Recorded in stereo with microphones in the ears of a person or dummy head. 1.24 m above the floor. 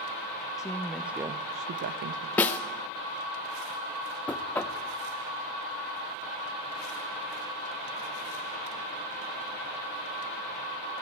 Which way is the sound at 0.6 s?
15° left (ahead or behind).